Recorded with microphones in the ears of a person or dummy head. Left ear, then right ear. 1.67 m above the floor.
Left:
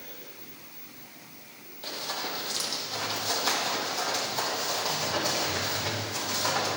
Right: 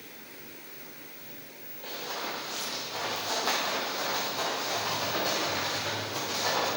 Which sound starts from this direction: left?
Running footsteps, at 1.8 s.